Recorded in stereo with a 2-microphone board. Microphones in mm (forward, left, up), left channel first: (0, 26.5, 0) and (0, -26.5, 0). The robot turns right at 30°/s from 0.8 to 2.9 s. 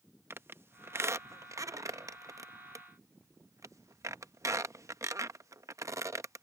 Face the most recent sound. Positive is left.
turn(degrees=-65)  # may be behind; listen again after turning